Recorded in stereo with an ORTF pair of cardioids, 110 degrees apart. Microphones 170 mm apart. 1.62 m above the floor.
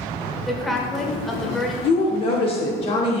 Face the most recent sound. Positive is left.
turn(degrees=35)